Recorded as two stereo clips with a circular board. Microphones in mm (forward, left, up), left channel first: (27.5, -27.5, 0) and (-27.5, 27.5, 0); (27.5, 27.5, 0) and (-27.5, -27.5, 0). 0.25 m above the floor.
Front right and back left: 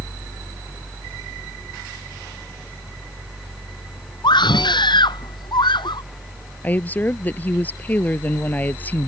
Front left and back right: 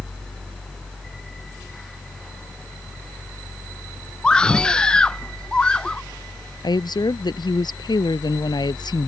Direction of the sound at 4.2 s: 35° right.